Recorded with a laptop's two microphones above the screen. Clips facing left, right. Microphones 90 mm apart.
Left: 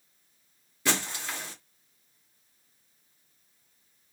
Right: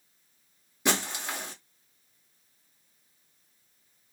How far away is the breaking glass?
About 1.1 m.